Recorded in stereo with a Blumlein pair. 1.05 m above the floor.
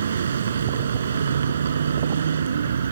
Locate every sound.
0.0 s a vehicle: 65° right